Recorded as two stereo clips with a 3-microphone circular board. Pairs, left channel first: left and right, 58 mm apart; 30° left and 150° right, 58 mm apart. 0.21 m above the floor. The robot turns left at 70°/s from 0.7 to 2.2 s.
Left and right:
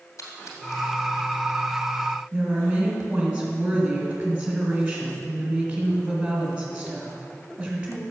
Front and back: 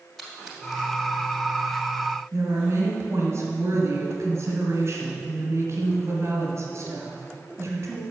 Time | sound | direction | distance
0.2 | a splash | 120° left | 2 m
2.3 | a woman speaking | 160° right | 2.5 m